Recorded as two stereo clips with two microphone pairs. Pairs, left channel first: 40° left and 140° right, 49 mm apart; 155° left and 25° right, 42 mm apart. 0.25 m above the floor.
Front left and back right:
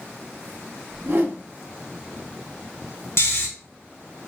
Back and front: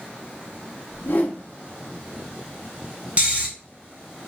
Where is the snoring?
25° left, 1.0 m.